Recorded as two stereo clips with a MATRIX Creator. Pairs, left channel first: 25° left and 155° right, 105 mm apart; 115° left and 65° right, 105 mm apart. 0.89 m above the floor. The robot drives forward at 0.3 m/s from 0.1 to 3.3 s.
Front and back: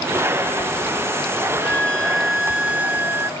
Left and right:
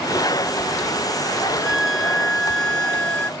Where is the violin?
15° left; by 3.3 s 170° left.